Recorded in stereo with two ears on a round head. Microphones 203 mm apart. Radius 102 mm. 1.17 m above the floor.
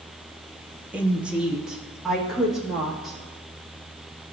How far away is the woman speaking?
About 0.7 m.